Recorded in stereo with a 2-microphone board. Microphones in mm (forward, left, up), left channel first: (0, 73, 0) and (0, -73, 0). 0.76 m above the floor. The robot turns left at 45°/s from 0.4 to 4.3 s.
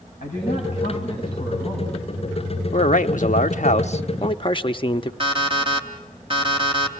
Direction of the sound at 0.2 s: 65° left.